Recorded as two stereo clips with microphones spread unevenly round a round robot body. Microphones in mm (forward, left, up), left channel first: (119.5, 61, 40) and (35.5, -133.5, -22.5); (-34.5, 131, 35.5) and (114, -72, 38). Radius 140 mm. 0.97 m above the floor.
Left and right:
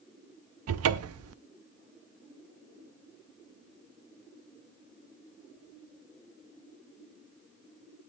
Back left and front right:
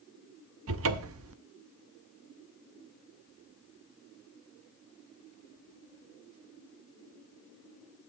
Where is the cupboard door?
100° right, 0.6 m.